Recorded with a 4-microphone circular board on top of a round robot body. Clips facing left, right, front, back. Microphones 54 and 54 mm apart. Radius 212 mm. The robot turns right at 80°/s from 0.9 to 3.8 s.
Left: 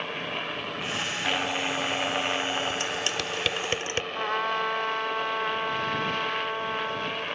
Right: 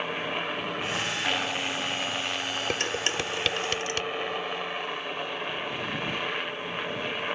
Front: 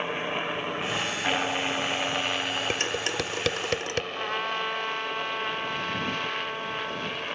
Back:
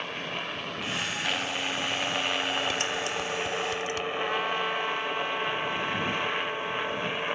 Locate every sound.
0.0 s a helicopter: 25° right; by 7.4 s 150° right
2.7 s dishes clattering: 60° right; by 4.0 s 30° left
4.1 s a trumpet: 85° left